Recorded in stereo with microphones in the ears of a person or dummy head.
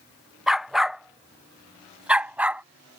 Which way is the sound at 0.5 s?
Centre (ahead or behind).